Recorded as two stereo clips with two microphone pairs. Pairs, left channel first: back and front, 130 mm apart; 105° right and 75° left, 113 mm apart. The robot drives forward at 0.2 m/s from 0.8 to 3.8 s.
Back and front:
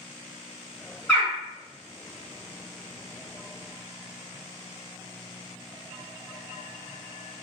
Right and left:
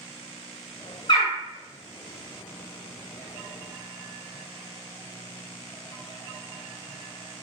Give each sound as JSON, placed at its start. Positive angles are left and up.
{"t": 1.1, "sound": "a bird", "azimuth_deg": -105, "distance_m": 1.1}